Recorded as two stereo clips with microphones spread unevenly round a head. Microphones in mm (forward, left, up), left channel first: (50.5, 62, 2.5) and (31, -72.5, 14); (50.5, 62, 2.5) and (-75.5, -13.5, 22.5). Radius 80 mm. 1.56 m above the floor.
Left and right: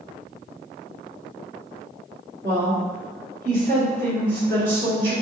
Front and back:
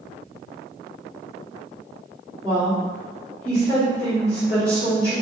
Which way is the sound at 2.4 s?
75° right.